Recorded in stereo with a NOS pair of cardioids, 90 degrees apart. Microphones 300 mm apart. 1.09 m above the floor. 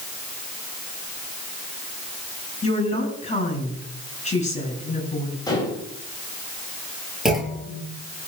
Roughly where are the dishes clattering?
Ahead.